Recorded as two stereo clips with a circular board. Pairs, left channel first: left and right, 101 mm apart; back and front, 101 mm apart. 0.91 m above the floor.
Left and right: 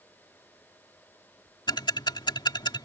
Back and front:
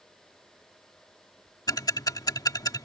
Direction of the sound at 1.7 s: 130° left.